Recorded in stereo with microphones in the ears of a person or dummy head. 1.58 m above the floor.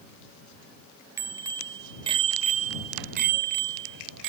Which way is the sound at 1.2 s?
15° right (ahead or behind).